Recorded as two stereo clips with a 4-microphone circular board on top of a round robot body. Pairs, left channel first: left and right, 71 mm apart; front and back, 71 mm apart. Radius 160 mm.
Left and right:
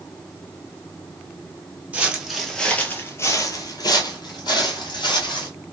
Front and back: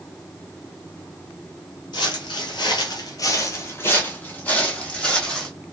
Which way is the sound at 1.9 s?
20° right.